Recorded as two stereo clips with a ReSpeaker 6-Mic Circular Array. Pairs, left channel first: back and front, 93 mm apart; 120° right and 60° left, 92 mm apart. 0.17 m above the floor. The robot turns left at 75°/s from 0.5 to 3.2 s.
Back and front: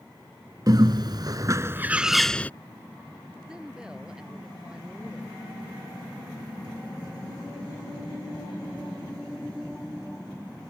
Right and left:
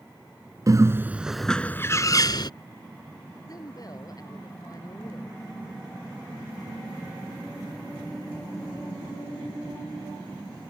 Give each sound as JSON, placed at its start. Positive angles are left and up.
{"t": 0.7, "sound": "a bird", "azimuth_deg": 25}
{"t": 3.5, "sound": "a woman speaking", "azimuth_deg": -80}